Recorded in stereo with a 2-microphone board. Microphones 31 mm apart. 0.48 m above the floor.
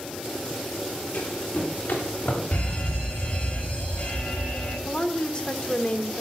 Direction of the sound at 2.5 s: 60° left (ahead or behind).